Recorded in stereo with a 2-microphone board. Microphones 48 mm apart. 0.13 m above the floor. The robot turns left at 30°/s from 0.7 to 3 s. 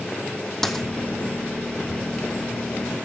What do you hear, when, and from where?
0.6 s a dropped coin: 5° left (ahead or behind), 1.4 m; by 0.8 s 10° left (ahead or behind), 1.4 m